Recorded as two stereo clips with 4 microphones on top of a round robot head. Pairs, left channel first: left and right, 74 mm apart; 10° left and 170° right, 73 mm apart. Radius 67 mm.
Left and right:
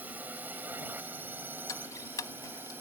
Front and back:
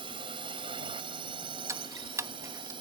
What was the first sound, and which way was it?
A drone, 160° right.